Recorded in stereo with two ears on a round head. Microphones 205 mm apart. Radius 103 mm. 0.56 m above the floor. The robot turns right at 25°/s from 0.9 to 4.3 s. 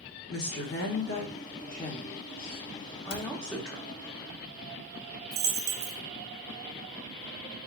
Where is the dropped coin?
45° right (ahead or behind), 0.6 m.